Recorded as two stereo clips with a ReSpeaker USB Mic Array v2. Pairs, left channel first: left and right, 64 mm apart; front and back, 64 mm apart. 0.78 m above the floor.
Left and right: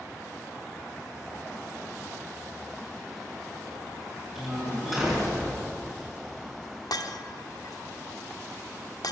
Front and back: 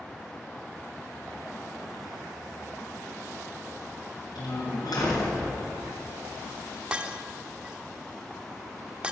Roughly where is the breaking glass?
Left.